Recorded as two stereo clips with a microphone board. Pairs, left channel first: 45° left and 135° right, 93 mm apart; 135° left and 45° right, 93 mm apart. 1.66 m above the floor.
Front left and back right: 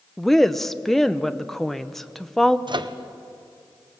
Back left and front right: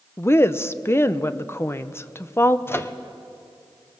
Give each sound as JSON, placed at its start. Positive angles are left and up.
{"t": 0.2, "sound": "a woman speaking", "azimuth_deg": 130, "distance_m": 0.6}
{"t": 2.7, "sound": "a microwave", "azimuth_deg": -160, "distance_m": 0.8}